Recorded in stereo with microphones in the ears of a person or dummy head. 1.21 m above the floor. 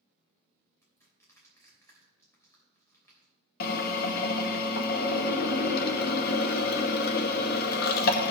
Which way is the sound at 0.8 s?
20° left (ahead or behind).